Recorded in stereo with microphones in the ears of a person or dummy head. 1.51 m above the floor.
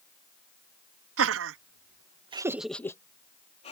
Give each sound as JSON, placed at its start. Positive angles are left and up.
{"t": 1.2, "sound": "laughter", "side_deg": -80}